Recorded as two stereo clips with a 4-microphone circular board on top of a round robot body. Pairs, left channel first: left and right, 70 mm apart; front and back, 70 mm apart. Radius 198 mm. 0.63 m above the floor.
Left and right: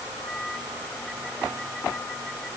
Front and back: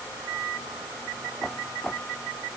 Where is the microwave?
No microwave in this recording.